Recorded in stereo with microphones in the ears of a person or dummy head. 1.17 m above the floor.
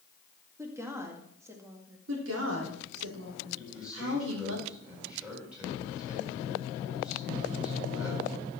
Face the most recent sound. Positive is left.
turn(degrees=0)  # may be behind; listen again after turning